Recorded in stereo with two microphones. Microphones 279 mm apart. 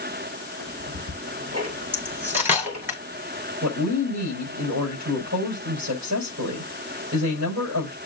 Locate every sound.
0.6 s ticking: 75° right (ahead or behind), 4.5 m
1.9 s cutlery clinking: 5° right (ahead or behind), 2 m
3.6 s a woman speaking: 85° right, 5.5 m